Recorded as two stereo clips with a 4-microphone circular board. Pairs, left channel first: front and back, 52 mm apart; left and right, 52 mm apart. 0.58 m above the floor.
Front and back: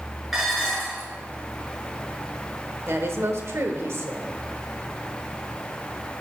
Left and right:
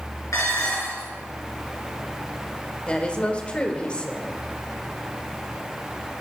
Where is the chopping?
No chopping in this recording.